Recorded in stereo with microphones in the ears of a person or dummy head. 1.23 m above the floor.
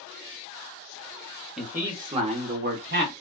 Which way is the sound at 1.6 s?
5° right (ahead or behind).